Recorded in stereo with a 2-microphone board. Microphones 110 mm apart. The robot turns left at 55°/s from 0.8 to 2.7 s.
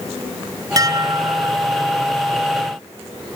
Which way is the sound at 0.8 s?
80° right.